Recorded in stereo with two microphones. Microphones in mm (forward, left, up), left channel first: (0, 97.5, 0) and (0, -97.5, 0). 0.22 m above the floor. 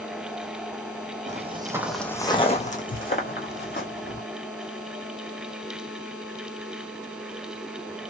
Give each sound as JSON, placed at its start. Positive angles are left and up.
{"t": 1.3, "sound": "footsteps", "side_deg": -40, "distance_m": 0.6}